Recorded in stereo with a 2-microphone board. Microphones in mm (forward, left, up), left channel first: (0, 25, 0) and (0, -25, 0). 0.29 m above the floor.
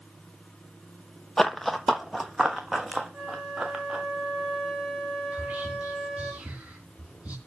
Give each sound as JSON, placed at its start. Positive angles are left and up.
{"t": 1.4, "sound": "running footsteps", "side_deg": 10, "distance_m": 0.6}
{"t": 3.1, "sound": "a flute", "side_deg": -10, "distance_m": 4.0}
{"t": 5.3, "sound": "whispering", "side_deg": -30, "distance_m": 3.0}